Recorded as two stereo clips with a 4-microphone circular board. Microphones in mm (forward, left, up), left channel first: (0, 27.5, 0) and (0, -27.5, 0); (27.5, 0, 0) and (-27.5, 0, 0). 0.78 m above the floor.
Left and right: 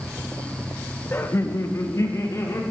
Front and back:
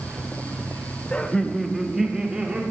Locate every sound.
1.1 s laughter: 60° left, 1.0 m; by 2.6 s 105° left, 2.0 m